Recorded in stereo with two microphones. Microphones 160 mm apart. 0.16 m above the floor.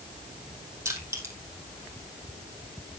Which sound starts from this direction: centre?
Crushing, at 0.8 s.